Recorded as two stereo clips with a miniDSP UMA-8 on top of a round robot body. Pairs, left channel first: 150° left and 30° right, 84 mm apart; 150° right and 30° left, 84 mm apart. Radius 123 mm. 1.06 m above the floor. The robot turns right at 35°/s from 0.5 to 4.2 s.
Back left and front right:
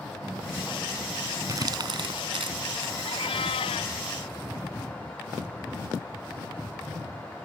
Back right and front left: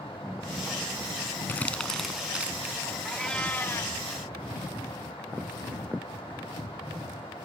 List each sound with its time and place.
1.5 s crumpling: 80° right; by 2.9 s 30° right
3.0 s a cat meowing: 120° left; by 4.0 s 150° left